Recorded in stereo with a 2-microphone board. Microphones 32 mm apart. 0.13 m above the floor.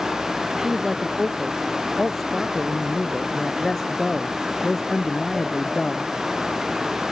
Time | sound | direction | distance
0.6 | a man speaking | centre (ahead or behind) | ?